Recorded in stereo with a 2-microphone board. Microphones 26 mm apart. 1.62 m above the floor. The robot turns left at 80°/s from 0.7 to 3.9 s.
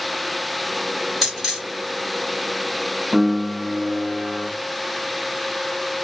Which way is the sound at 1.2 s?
15° right (ahead or behind).